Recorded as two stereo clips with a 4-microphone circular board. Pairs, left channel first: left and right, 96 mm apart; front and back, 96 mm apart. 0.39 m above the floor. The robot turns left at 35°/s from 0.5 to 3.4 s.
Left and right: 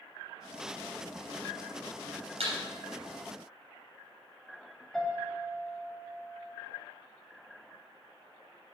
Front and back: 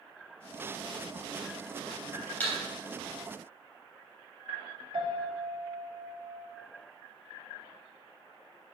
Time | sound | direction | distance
2.4 | a thud | 75° right | 3 m
4.9 | a piano | 175° left | 1.4 m